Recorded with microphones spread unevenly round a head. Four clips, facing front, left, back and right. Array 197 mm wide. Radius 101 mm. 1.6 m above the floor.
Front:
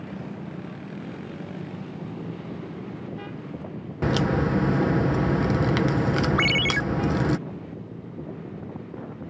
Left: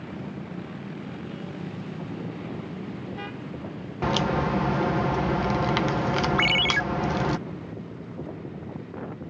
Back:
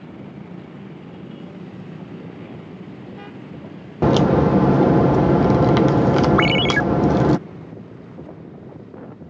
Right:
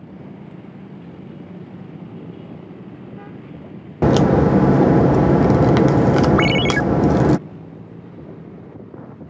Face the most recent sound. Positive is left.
turn(degrees=-145)